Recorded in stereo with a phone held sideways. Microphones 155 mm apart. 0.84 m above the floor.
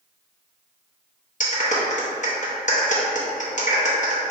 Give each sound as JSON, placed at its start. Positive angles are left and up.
{"t": 1.4, "sound": "a clap", "side_deg": 55, "distance_m": 0.9}